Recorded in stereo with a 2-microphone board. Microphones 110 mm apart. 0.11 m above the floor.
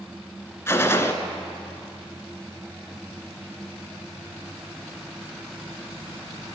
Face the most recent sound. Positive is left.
turn(degrees=25)  # may be behind; listen again after turning